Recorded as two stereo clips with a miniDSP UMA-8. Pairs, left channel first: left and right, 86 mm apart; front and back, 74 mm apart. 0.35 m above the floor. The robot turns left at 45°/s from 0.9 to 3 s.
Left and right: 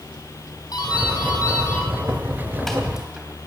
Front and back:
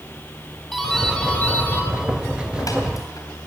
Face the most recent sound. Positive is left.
turn(degrees=-10)